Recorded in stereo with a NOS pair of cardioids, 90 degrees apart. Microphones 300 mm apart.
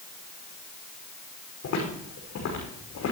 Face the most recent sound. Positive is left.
turn(degrees=60)